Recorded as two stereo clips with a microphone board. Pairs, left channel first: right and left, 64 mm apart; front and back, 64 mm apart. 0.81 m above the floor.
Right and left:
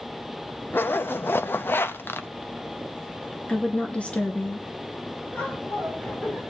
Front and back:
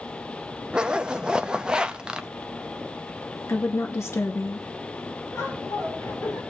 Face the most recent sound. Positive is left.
turn(degrees=-35)